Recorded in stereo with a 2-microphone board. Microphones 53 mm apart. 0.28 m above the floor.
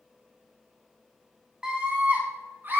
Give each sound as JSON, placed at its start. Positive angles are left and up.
{"t": 1.6, "sound": "a scream", "side_deg": -10, "distance_m": 1.4}